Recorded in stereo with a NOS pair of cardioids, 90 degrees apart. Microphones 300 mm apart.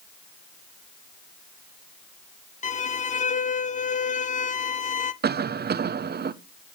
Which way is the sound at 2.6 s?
25° left.